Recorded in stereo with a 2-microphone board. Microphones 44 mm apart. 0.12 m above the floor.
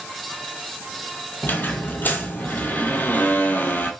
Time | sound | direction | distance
1.4 | a squeak | 45° left (ahead or behind) | 0.7 m